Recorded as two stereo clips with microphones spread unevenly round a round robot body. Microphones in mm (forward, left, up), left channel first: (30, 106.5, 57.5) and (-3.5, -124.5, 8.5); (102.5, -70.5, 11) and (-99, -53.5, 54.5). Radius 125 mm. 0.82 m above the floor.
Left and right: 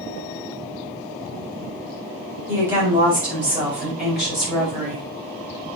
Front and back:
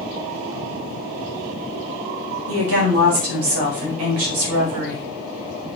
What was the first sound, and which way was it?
A woman speaking, 175° right.